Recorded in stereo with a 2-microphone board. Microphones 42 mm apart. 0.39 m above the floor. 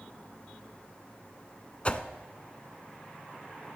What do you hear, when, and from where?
1.9 s a whoosh: 30° left (ahead or behind), 0.5 m